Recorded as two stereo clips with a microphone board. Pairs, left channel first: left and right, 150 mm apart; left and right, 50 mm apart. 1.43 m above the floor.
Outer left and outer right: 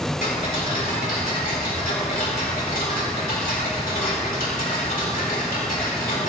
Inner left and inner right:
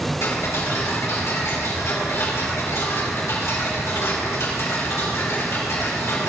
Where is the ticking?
65° left (ahead or behind), 3 m.